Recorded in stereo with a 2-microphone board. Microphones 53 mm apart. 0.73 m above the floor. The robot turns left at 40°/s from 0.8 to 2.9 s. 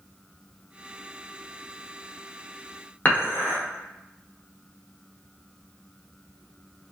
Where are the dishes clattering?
35° left (ahead or behind), 1.0 m.